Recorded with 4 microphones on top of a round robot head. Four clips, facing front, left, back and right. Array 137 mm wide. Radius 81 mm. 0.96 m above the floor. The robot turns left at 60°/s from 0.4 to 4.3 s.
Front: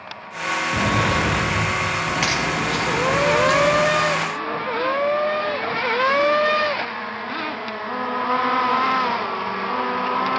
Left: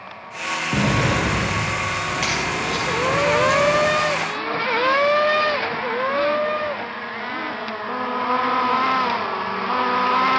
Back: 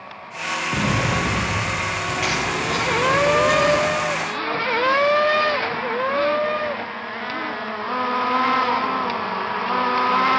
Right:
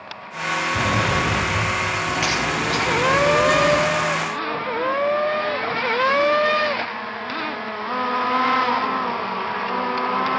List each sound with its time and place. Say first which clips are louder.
0.7 s an explosion: left 2 dB, front 1 dB; 100° left, 6 m; by 2.0 s 25° left, 6 m
2.1 s a crack: right 1 dB, front 1 dB; 20° left, 6 m; by 3.9 s 90° right, 6 m